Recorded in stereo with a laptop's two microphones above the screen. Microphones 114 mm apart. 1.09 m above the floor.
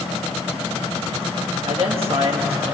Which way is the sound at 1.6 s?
60° right (ahead or behind).